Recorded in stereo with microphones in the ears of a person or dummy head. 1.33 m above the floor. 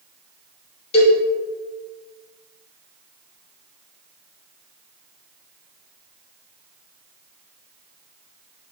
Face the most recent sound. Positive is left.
turn(degrees=35)  # may be behind; listen again after turning